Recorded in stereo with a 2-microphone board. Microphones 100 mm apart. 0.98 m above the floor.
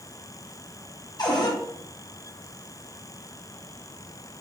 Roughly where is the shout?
I don't hear a shout.